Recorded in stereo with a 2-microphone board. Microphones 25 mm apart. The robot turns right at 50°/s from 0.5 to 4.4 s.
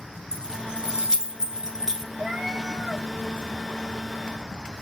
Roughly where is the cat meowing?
Ahead right.